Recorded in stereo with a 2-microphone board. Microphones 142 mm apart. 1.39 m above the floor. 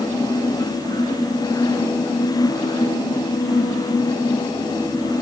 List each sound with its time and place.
Only background noise.